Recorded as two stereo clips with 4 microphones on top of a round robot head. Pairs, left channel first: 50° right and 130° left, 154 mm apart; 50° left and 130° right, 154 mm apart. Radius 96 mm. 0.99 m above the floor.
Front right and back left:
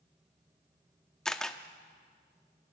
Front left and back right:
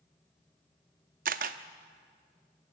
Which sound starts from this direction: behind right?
A camera shutter, at 1.2 s.